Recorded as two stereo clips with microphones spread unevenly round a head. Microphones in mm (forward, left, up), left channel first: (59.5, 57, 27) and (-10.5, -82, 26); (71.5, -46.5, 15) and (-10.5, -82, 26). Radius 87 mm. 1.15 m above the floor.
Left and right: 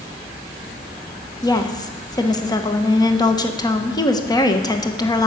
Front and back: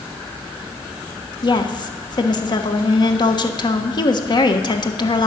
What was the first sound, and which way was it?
A woman speaking, straight ahead.